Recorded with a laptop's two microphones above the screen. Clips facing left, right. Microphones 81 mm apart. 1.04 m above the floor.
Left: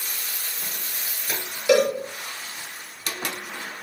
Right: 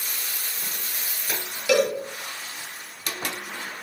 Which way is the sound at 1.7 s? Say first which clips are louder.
Left 2 dB; 20° left (ahead or behind).